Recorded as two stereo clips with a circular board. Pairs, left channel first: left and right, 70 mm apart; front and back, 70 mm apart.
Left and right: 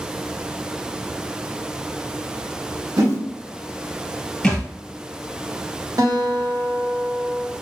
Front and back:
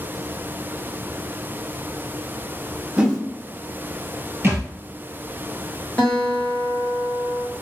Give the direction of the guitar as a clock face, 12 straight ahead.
2 o'clock.